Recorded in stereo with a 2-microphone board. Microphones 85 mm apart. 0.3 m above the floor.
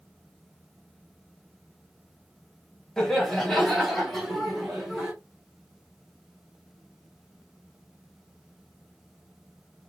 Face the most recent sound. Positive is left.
turn(degrees=-5)  # may be behind; listen again after turning